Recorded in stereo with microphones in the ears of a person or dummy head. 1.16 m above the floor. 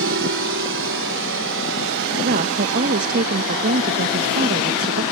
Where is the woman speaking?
45° right (ahead or behind).